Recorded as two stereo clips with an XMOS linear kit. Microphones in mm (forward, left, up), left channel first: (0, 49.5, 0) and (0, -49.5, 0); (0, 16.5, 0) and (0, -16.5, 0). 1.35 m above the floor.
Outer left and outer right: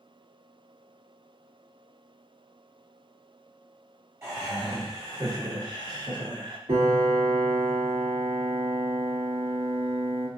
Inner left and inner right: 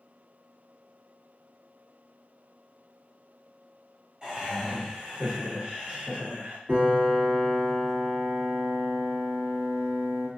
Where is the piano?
85° right, 1.7 m.